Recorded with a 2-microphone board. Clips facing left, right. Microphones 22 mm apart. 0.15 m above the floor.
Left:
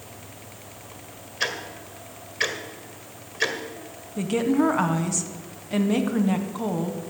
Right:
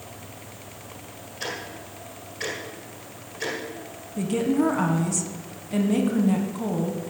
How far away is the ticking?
About 1.7 m.